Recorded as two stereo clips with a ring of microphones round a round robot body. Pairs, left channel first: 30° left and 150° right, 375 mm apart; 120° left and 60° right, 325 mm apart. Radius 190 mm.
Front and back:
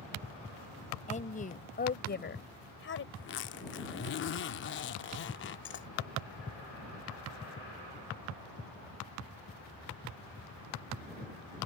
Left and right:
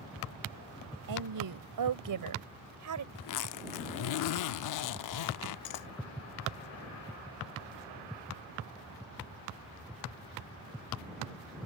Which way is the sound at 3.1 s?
90° left.